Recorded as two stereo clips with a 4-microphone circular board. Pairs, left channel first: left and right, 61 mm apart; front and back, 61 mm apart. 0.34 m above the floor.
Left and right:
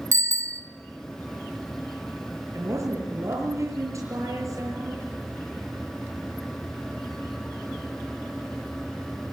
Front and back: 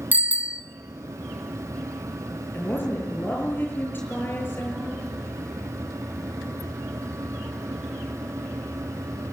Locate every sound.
0.1 s a bicycle bell: 120° right, 2 m
2.5 s a woman speaking: 55° right, 6.5 m